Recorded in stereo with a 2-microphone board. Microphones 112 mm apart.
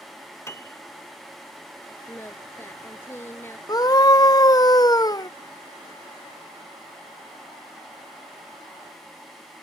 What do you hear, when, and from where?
0.5 s a piano: 25° left (ahead or behind)
2.1 s singing: 20° left (ahead or behind)
3.7 s a scream: 35° left (ahead or behind)